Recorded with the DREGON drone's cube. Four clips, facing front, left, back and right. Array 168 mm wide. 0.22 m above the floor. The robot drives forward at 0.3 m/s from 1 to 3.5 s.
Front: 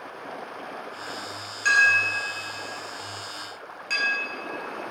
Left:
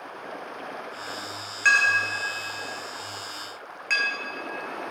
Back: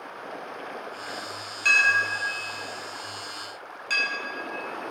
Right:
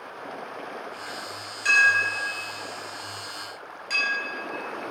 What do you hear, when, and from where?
1.6 s a clink: 85° left, 1.8 m; by 4.1 s 100° left, 1.9 m